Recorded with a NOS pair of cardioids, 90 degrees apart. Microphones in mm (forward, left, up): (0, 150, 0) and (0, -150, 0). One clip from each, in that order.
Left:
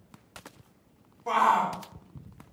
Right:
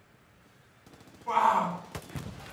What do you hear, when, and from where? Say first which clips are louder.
1.3 s a shout: left 1 dB; 65° left, 2.0 m